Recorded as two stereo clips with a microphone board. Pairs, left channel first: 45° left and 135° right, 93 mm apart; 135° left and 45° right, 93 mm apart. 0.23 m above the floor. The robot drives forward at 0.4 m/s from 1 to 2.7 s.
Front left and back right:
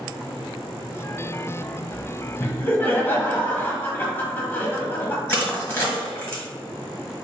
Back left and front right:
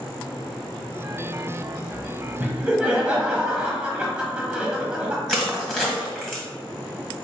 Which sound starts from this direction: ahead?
Laughter, at 2.4 s.